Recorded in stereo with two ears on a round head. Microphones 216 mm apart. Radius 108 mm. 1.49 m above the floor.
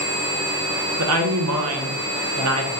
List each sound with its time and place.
1.0 s a woman speaking: 70° right (ahead or behind), 0.9 m